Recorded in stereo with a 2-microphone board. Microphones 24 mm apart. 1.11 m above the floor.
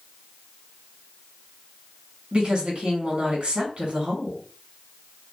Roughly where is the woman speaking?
Right.